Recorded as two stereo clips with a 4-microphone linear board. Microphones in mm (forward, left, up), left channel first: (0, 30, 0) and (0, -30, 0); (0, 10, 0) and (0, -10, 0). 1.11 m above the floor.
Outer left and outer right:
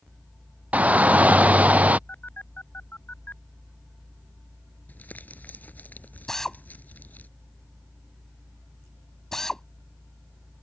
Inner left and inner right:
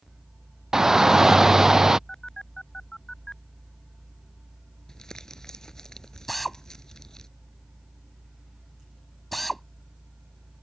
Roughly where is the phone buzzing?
Left.